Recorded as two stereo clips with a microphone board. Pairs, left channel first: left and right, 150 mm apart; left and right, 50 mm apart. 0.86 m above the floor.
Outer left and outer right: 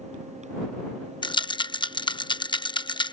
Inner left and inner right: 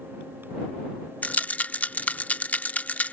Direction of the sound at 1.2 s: 30° left (ahead or behind).